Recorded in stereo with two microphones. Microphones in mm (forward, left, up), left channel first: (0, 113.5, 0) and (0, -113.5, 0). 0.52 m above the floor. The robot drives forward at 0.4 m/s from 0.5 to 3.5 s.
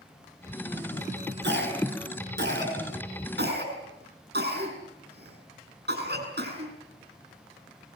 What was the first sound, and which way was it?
A cough, 55° right (ahead or behind).